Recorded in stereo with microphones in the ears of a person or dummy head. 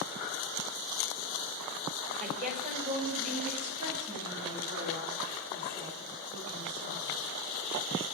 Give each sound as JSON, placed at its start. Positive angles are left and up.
{"t": 2.2, "sound": "a woman speaking", "side_deg": -45, "distance_m": 4.5}